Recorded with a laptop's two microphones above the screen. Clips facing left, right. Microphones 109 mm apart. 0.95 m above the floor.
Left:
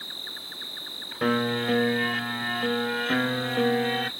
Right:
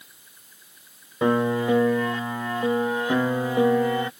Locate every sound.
0.0 s an insect: 85° left
1.2 s a piano: 25° right (ahead or behind)